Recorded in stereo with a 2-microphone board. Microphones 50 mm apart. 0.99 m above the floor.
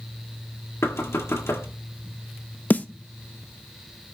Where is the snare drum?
35° left (ahead or behind), 0.6 m.